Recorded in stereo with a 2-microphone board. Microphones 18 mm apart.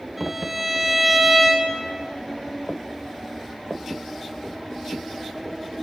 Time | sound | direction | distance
0.2 | a violin | 15° right (ahead or behind) | 2 m